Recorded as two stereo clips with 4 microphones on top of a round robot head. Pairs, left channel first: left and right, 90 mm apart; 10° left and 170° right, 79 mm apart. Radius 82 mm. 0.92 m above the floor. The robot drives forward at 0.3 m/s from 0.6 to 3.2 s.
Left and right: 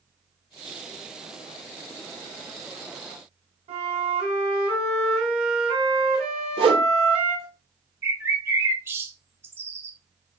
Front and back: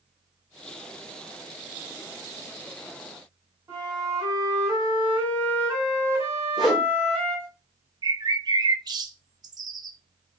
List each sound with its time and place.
3.7 s a flute: 110° right, 2.0 m
6.6 s a whoosh: 80° right, 0.9 m
8.0 s a bird: 150° right, 0.6 m